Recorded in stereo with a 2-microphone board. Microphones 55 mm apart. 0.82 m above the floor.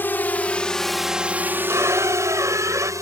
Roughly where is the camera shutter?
No camera shutter in this recording.